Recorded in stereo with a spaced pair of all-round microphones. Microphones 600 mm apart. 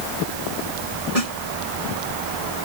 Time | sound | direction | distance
0.0 | a fan | 85° right | ?
1.1 | a snare drum | 70° left (ahead or behind) | ?